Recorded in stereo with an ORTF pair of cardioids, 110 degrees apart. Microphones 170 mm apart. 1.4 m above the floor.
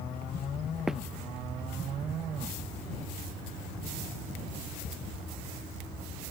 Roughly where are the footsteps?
Ahead.